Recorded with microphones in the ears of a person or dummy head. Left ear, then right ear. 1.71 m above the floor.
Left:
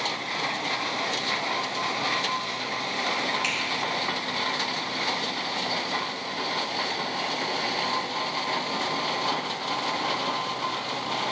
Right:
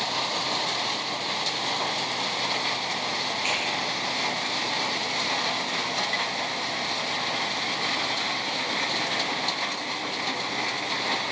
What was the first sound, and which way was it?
A finger snap, 55° left (ahead or behind).